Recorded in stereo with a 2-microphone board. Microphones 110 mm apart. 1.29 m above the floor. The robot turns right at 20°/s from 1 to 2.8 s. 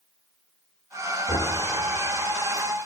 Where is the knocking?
65° left (ahead or behind), 2 m; by 1.6 s 70° left (ahead or behind), 2 m.